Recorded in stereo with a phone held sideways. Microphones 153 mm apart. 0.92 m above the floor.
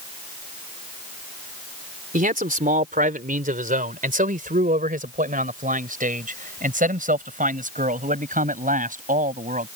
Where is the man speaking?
75° right (ahead or behind); by 9.7 s 70° right (ahead or behind).